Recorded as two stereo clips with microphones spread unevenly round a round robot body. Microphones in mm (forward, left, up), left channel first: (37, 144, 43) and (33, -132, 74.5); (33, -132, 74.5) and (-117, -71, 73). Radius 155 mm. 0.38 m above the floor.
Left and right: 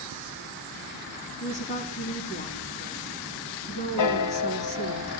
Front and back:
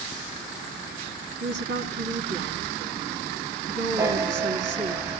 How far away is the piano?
About 2.0 m.